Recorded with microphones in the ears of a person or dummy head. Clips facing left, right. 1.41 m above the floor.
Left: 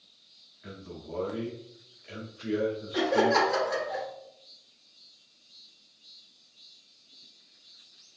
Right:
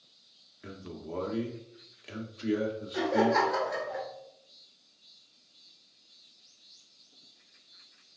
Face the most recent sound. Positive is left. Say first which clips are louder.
# left 1 dB
turn(degrees=50)  # may be behind; listen again after turning